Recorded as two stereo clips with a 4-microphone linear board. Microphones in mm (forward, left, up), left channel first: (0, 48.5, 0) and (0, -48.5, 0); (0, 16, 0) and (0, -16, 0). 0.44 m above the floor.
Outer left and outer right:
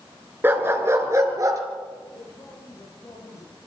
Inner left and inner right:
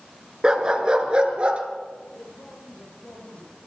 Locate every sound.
0.4 s a dog barking: 20° right (ahead or behind), 3 m; by 1.6 s 35° right (ahead or behind), 3.5 m
2.1 s a man speaking: 35° left (ahead or behind), 9.5 m